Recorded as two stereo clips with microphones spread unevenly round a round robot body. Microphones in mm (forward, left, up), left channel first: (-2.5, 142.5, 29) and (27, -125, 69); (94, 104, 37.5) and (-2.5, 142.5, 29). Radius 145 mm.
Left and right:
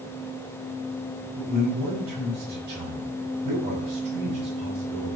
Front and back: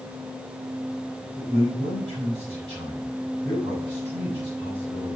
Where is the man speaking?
140° right, 3.5 m.